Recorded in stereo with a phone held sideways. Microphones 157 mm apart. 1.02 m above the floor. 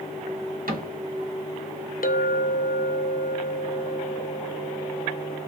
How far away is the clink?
About 0.6 m.